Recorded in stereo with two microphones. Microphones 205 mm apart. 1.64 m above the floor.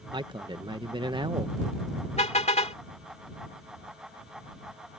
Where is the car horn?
35° left (ahead or behind).